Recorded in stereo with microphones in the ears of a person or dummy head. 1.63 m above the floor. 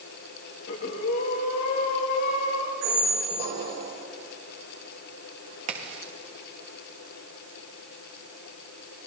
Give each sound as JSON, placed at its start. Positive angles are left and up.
{"t": 0.7, "sound": "breathing", "side_deg": 60, "distance_m": 2.0}
{"t": 2.8, "sound": "a squeak", "side_deg": -65, "distance_m": 2.5}
{"t": 5.7, "sound": "a crack", "side_deg": -45, "distance_m": 1.7}